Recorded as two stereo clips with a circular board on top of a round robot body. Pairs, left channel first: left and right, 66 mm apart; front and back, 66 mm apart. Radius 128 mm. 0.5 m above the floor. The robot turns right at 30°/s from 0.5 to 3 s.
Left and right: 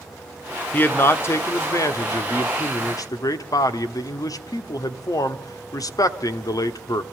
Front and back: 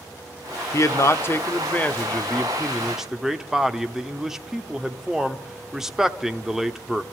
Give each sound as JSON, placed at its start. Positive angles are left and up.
{"t": 0.7, "sound": "a man speaking", "azimuth_deg": 30, "distance_m": 1.3}